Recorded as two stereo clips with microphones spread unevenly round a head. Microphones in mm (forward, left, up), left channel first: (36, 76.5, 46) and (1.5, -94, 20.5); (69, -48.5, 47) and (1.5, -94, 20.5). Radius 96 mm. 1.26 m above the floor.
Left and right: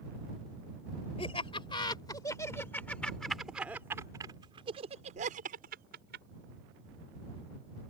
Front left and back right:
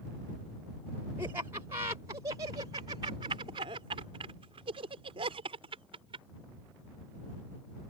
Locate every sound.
1.2 s laughter: 140° left; by 6.2 s 140° right